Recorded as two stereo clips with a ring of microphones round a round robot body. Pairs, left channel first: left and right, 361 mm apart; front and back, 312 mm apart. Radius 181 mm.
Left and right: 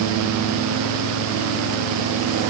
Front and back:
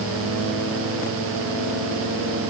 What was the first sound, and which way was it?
Only background noise.